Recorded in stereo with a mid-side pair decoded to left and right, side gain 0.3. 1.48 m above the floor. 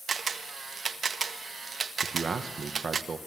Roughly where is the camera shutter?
Ahead right.